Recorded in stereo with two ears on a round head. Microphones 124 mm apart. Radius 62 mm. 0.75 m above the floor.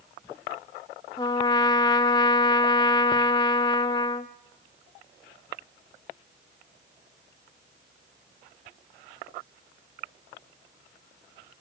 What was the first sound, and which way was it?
A trumpet, 30° left (ahead or behind).